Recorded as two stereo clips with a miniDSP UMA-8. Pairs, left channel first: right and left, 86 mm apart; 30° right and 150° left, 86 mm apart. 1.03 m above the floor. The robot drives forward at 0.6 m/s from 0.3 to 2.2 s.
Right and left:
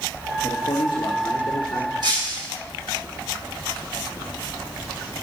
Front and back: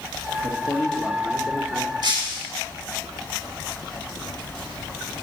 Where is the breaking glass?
120° left, 3 m.